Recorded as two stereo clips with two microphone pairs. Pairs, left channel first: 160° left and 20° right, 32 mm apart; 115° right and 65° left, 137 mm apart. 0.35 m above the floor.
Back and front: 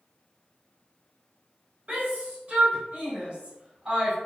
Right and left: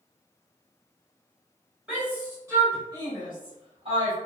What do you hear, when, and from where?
1.9 s a shout: 15° right, 1.3 m; by 4.2 s 40° left, 1.8 m